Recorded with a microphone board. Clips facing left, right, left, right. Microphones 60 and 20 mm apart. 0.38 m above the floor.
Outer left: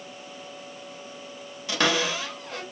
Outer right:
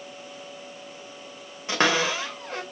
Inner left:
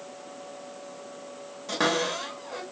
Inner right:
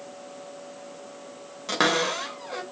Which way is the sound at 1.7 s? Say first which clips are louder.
Outer right 2 dB, inner right 3 dB; 30° right (ahead or behind).